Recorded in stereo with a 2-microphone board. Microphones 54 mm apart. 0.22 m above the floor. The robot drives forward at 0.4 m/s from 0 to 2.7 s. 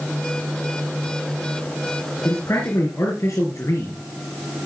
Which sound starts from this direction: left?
A man speaking, at 2.2 s.